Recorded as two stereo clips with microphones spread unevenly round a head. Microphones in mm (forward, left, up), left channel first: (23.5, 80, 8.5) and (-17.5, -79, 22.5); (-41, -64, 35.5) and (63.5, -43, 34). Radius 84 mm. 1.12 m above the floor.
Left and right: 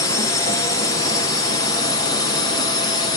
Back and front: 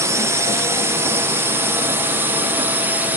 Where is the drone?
40° left; by 3.2 s 65° left.